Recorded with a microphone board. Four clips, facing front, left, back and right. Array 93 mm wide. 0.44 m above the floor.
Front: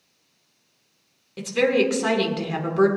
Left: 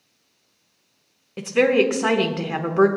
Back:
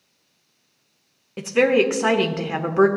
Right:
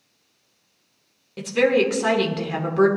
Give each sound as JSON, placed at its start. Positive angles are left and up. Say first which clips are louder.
{"t": 1.4, "sound": "a woman speaking", "louder": "left 1 dB, back 3 dB", "azimuth_deg": 150, "distance_m": 1.0}